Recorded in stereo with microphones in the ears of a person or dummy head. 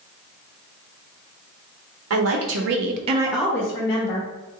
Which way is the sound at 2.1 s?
80° right.